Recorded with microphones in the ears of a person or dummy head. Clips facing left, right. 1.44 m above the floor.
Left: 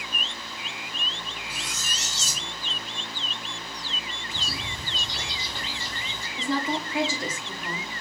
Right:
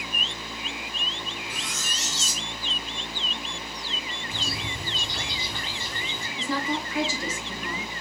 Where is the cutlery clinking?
5° left (ahead or behind), 3.5 m.